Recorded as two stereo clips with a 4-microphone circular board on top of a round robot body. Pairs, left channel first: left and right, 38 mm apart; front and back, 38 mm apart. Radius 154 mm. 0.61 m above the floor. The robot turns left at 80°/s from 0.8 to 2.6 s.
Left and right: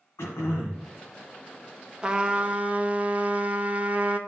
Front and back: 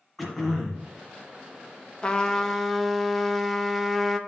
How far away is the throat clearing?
About 1.5 m.